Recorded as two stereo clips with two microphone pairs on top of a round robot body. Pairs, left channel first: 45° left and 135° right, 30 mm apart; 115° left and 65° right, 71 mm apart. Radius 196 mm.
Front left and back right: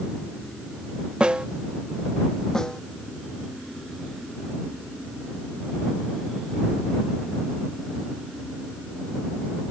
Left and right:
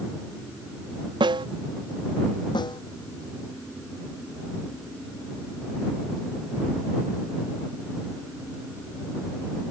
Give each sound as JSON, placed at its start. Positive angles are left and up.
{"t": 1.2, "sound": "a snare drum", "azimuth_deg": -75}
{"t": 2.5, "sound": "a snare drum", "azimuth_deg": 115}